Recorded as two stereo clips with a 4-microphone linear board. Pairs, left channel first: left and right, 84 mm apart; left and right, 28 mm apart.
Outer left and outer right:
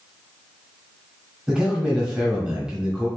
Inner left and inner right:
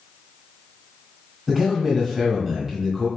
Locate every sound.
1.5 s a man speaking: 10° right (ahead or behind), 1.4 m